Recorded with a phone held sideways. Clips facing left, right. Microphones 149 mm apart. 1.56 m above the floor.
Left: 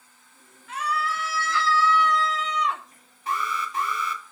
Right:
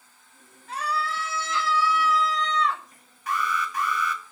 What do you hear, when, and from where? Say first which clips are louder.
0.7 s a scream: left 1 dB; 35° right (ahead or behind), 3 m; by 2.8 s 20° left (ahead or behind), 1.6 m
3.3 s an alarm: right 1 dB; 25° left (ahead or behind), 2 m